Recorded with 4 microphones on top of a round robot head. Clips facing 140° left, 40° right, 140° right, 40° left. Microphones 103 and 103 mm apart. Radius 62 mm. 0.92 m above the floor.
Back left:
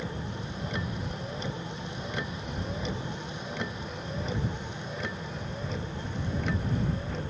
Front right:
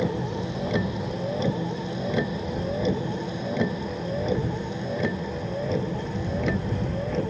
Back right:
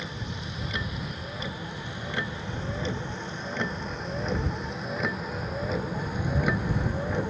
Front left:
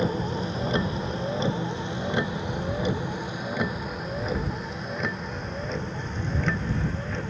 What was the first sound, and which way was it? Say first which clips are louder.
A vehicle: front right 10 dB, front left 10 dB; 15° right.